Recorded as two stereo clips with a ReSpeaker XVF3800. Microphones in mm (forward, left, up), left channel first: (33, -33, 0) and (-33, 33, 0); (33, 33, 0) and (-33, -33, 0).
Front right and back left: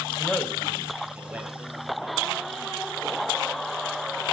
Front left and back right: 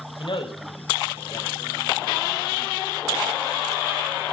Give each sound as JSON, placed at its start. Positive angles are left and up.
{"t": 0.2, "sound": "a man speaking", "azimuth_deg": 30, "distance_m": 2.5}